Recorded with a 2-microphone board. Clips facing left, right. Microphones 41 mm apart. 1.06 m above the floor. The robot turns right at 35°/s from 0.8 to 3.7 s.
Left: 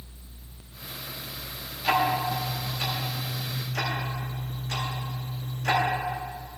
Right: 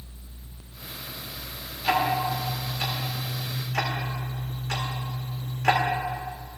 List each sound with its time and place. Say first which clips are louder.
1.8 s ticking: even; 5° left (ahead or behind), 1.6 m; by 5.8 s 60° right (ahead or behind), 1.6 m